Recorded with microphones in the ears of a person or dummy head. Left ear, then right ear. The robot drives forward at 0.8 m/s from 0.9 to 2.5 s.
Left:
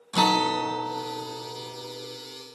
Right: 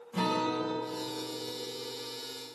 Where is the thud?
I don't hear a thud.